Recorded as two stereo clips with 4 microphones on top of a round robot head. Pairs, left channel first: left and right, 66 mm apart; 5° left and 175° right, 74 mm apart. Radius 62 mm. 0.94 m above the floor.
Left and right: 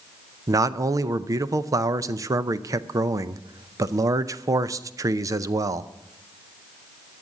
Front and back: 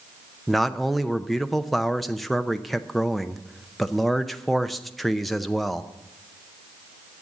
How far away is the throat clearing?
No throat clearing in this recording.